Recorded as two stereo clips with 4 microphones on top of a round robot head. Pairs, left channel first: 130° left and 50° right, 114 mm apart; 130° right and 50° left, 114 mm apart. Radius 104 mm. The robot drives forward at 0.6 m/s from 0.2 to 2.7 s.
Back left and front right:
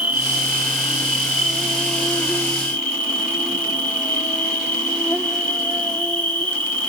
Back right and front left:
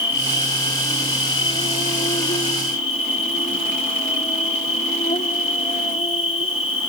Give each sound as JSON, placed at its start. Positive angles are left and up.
{"t": 0.0, "sound": "an insect", "azimuth_deg": -115, "distance_m": 2.0}